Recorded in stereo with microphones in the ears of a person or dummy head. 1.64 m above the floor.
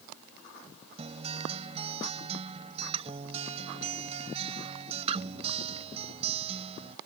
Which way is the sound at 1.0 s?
30° right (ahead or behind).